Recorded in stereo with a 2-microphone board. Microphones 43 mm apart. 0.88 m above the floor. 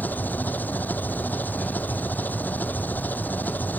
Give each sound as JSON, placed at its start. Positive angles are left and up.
{"t": 0.0, "sound": "an engine running", "side_deg": 40}